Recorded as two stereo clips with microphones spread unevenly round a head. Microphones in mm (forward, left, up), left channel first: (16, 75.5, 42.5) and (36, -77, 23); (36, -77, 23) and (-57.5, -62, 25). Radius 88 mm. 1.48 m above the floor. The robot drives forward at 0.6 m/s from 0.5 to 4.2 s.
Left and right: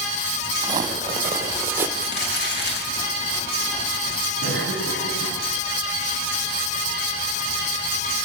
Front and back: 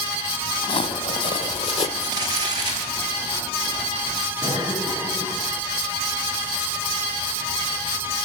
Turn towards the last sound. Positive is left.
turn(degrees=105)